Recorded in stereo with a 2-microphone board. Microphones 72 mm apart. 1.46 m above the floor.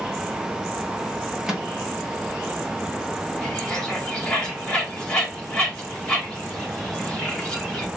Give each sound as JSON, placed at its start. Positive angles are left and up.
{"t": 1.5, "sound": "a microwave", "side_deg": -10, "distance_m": 1.3}
{"t": 3.4, "sound": "a bird", "side_deg": 10, "distance_m": 1.8}